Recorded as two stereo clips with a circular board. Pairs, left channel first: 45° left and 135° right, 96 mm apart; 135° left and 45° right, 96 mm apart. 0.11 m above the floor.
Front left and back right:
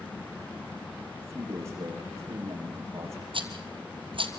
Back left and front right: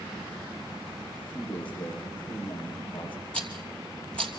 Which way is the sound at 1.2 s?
165° left.